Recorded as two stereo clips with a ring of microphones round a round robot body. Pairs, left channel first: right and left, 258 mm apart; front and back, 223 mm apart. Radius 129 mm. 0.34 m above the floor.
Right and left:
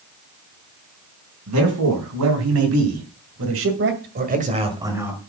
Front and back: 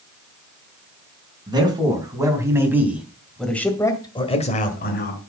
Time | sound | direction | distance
1.5 | a man speaking | 110° left | 4 m